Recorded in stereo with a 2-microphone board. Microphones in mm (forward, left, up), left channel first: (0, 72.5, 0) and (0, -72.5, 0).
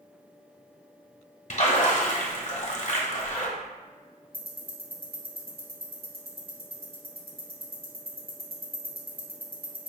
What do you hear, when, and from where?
1.5 s a splash: 50° left (ahead or behind), 1.0 m
4.3 s ticking: 75° right (ahead or behind), 1.3 m